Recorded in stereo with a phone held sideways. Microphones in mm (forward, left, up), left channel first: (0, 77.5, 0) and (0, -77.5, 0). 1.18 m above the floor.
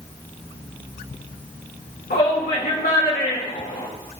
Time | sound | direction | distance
2.1 | a shout | 70° left (ahead or behind) | 1.7 m